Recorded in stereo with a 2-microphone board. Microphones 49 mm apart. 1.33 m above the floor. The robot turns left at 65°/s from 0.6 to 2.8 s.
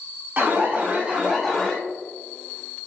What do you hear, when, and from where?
0.4 s an alarm: 125° right, 0.9 m; by 1.8 s 160° left, 0.9 m